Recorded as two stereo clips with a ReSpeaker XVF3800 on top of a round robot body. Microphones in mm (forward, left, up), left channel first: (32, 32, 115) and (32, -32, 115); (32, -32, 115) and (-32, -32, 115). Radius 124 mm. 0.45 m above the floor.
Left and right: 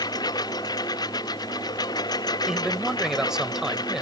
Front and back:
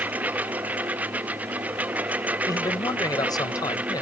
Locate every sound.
0.0 s a lawn mower: 110° left
2.5 s a man speaking: 10° right